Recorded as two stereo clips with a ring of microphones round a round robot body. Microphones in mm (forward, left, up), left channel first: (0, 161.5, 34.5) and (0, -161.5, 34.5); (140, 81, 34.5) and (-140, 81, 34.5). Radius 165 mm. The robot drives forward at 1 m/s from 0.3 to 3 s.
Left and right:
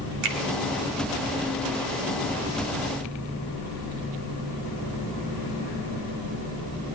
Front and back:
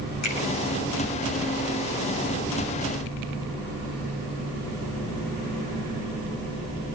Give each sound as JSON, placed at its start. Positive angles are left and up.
{"t": 0.2, "sound": "a finger snap", "azimuth_deg": -60, "distance_m": 3.0}